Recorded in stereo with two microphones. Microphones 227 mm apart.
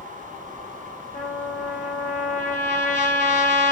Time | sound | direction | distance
1.1 | a trumpet | 40° left (ahead or behind) | 5.5 m